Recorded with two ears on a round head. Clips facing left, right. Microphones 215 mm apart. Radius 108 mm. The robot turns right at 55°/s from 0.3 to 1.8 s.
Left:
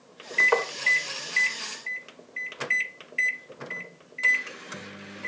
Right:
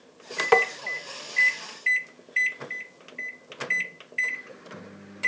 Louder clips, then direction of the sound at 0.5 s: Right 4 dB; 50° right (ahead or behind).